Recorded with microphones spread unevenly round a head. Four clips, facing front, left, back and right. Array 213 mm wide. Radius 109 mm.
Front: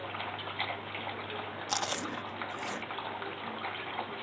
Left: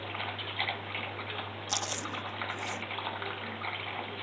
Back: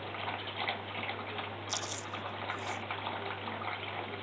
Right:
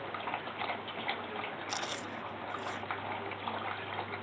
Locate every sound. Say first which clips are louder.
1.7 s chewing: left 2 dB, front 5 dB; 20° left